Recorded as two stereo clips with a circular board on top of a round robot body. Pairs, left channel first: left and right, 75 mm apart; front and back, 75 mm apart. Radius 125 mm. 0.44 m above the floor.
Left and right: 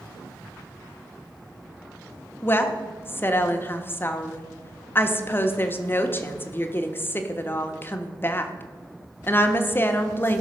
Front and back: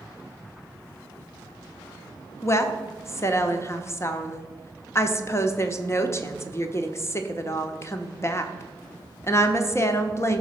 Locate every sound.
2.4 s a woman speaking: 40° left, 1.3 m